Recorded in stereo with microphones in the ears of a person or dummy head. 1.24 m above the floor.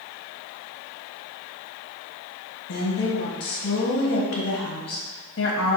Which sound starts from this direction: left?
A woman speaking, at 2.7 s.